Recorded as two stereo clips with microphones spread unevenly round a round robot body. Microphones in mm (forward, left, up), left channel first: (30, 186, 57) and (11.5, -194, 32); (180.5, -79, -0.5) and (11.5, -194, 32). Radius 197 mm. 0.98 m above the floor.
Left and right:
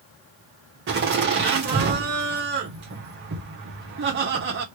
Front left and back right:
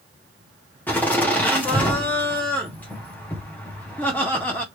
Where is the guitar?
I don't hear a guitar.